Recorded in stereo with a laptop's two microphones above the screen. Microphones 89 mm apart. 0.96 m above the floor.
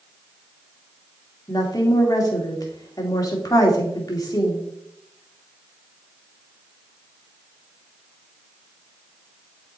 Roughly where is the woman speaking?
Left.